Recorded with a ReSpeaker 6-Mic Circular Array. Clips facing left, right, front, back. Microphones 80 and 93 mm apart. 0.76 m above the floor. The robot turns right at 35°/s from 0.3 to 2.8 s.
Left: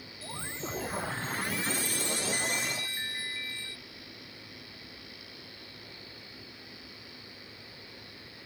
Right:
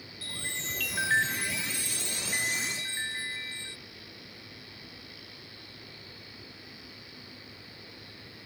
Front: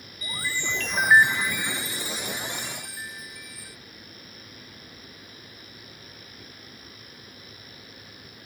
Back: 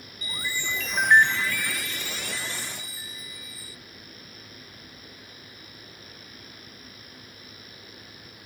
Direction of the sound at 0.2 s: 115° right.